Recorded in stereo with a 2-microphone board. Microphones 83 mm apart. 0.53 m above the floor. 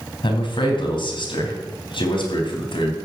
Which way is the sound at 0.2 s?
75° left (ahead or behind).